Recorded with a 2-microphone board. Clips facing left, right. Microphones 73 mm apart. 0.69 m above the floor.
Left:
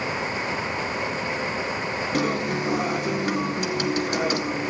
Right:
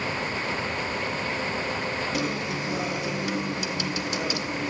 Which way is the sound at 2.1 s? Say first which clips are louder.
Left 4 dB; 45° left (ahead or behind).